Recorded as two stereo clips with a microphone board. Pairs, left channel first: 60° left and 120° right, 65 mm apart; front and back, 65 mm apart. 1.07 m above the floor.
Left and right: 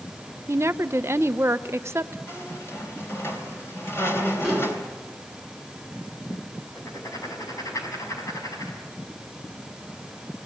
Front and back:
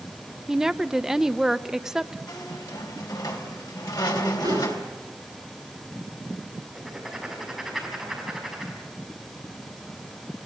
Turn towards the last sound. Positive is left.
turn(degrees=90)